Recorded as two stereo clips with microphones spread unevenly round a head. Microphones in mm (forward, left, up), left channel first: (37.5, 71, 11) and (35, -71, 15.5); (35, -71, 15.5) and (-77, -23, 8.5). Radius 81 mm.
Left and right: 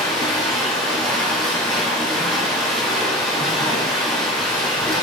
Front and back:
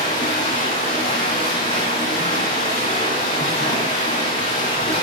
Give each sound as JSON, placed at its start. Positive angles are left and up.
{"t": 0.0, "sound": "running water", "azimuth_deg": 0, "distance_m": 7.0}